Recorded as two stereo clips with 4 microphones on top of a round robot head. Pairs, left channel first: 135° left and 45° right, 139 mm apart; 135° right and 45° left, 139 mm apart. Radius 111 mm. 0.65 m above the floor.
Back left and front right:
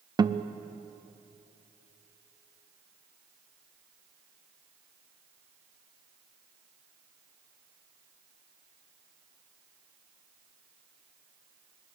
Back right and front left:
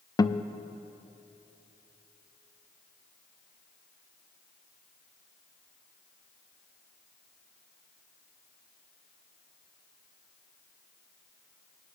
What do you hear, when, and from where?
0.2 s a guitar: 90° right, 0.6 m